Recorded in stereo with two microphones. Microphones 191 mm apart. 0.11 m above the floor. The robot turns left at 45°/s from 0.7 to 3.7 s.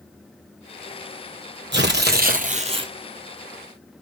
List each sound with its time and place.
1.7 s tearing paper: 100° right, 0.7 m; by 2.9 s 155° right, 0.7 m